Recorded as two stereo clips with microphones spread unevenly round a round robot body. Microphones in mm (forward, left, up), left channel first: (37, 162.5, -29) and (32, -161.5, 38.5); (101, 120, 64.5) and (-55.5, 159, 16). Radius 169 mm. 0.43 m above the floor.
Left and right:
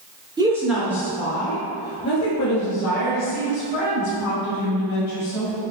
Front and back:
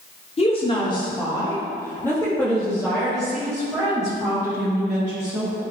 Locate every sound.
0.4 s a woman speaking: 5° right, 1.2 m; by 5.6 s 90° left, 4 m